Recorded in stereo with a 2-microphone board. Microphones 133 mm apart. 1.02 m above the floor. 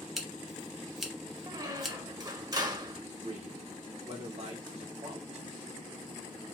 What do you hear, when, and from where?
0.2 s scissors: 5° right (ahead or behind), 1.1 m
1.5 s a squeak: 30° right (ahead or behind), 0.8 m
3.2 s a man speaking: 50° right (ahead or behind), 1.5 m